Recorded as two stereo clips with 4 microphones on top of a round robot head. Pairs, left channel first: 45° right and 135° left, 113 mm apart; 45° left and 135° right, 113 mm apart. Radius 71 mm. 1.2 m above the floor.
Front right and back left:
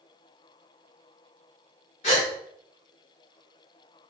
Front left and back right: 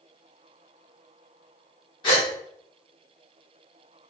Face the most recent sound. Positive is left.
turn(degrees=-10)